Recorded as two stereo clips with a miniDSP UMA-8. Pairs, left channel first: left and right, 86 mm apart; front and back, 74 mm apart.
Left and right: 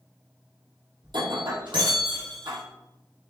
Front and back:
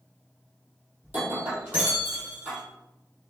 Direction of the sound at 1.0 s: 115° right.